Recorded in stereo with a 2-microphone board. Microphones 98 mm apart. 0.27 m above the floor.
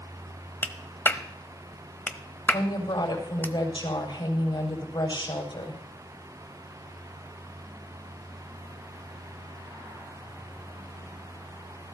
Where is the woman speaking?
60° left (ahead or behind), 6.5 m.